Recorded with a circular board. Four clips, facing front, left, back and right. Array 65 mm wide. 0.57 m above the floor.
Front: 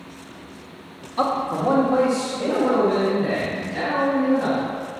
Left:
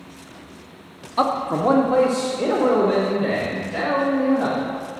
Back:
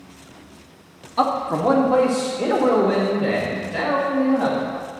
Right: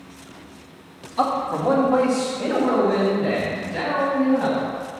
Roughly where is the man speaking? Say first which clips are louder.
Left 1 dB, back 2 dB; left.